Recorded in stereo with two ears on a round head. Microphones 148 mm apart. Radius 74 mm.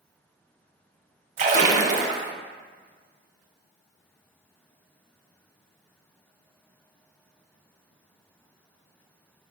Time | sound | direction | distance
1.4 | a splash | 45° right (ahead or behind) | 0.5 m